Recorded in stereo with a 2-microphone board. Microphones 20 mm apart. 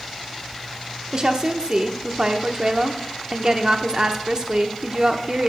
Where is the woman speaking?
35° right (ahead or behind), 0.8 m.